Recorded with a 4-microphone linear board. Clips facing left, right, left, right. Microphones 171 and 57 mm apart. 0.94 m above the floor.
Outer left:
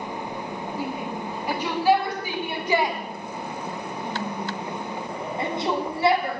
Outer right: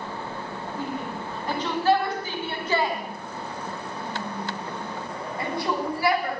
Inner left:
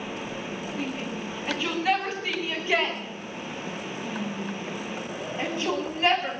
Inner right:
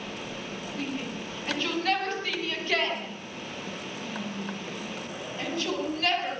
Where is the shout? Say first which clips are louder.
Even, even; 5° left (ahead or behind), 8.5 m; by 6.4 s 25° left (ahead or behind), 7 m.